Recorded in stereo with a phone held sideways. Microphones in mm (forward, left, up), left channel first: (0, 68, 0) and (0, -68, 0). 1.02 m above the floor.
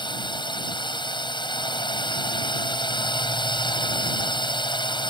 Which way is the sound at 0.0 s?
35° left (ahead or behind).